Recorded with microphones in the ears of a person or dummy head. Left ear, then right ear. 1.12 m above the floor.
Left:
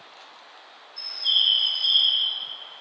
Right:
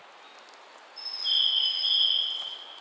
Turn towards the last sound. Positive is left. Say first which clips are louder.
# left 4 dB
turn(degrees=15)  # may be behind; listen again after turning